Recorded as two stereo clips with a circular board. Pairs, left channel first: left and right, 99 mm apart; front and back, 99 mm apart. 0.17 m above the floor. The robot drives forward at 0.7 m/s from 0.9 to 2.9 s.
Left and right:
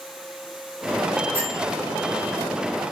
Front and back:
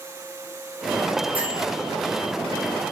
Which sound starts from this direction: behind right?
A bell, at 1.3 s.